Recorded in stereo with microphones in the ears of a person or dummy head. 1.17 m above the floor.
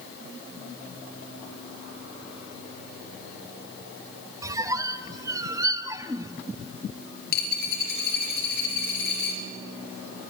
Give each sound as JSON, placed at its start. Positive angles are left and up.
{"t": 4.4, "sound": "a squeak", "side_deg": -20, "distance_m": 0.8}
{"t": 7.3, "sound": "a dropped coin", "side_deg": 60, "distance_m": 3.0}